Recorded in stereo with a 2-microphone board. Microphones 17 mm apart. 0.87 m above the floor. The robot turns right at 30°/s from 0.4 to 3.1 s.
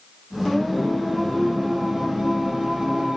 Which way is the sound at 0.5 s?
175° left.